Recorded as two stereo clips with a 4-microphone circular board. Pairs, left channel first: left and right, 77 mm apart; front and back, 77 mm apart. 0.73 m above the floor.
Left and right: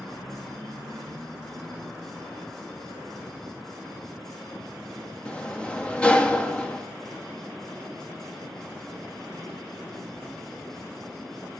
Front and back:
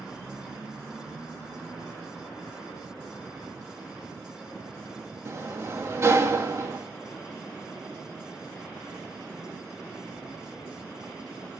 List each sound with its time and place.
5.2 s a sliding door: 155° left, 1.2 m